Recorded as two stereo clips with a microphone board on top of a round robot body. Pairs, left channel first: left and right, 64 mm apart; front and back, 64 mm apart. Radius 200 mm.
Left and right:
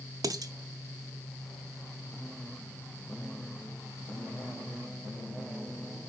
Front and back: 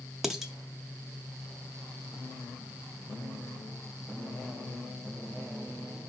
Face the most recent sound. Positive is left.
turn(degrees=-100)